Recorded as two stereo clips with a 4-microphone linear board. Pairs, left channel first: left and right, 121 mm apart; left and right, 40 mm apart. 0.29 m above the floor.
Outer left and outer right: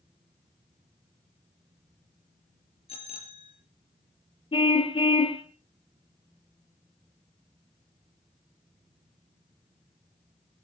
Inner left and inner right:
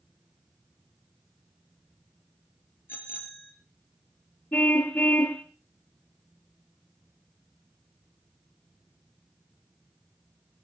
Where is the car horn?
50° left (ahead or behind), 2.5 m.